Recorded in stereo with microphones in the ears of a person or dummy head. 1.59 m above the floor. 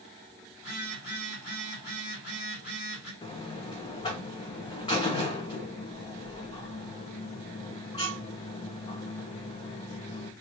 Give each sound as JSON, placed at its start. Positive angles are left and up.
{"t": 0.6, "sound": "a phone buzzing", "side_deg": 55, "distance_m": 2.5}
{"t": 3.2, "sound": "a buzzer", "side_deg": 25, "distance_m": 1.0}